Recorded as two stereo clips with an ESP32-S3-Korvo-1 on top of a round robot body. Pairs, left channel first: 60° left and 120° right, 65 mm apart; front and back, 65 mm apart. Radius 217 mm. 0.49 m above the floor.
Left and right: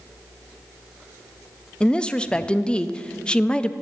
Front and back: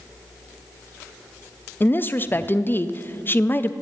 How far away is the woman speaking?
About 0.7 m.